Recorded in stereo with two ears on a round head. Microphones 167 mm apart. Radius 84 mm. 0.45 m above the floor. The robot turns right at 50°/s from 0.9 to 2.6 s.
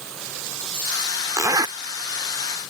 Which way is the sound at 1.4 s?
15° right (ahead or behind).